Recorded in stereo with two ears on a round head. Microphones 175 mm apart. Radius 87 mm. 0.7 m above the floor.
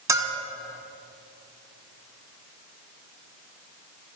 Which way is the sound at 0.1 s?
15° right (ahead or behind).